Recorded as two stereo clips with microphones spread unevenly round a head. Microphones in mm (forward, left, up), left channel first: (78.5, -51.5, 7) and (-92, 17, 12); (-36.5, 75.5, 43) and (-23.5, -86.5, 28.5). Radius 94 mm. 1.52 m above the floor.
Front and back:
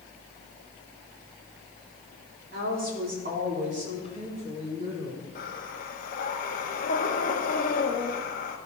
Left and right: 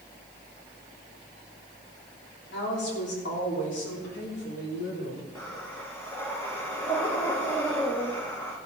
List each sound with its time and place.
2.5 s a woman speaking: 115° left, 3.5 m; by 5.3 s 95° left, 4 m
5.3 s breathing: 20° left, 1.3 m